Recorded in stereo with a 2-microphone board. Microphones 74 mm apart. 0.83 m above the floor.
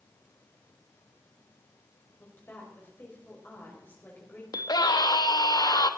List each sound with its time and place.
2.2 s a woman speaking: 30° left (ahead or behind), 4.5 m
4.5 s a scream: 60° left (ahead or behind), 1.1 m